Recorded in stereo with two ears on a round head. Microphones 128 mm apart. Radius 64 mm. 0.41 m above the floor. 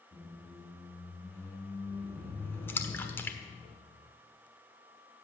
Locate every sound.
0.1 s a squeak: 15° left (ahead or behind), 3.5 m
2.7 s a splash: 15° left (ahead or behind), 1.4 m